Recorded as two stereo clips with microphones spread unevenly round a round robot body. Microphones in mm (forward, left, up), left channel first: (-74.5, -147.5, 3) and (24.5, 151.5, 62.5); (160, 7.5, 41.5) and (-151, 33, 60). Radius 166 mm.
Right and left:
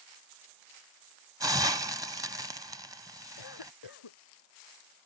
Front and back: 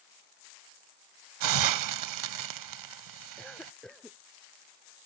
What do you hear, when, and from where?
1.4 s a hiss: 155° left
3.4 s a cough: 90° right